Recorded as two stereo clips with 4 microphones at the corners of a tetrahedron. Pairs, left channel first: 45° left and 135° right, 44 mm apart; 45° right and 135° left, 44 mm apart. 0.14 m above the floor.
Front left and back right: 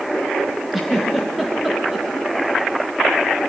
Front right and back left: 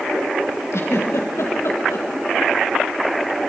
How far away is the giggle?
About 3 m.